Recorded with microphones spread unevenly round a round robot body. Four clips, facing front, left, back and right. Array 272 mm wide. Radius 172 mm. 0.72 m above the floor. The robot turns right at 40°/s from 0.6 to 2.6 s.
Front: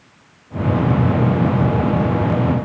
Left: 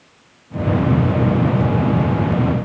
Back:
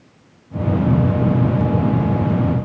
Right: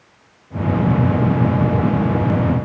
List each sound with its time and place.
Only background noise.